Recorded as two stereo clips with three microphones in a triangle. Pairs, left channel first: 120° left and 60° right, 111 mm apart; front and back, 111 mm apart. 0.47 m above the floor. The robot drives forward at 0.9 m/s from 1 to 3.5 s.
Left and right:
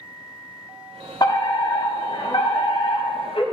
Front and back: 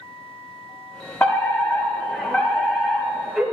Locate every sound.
1.2 s a fire alarm: 70° left, 6 m; by 3.4 s 90° left, 5.5 m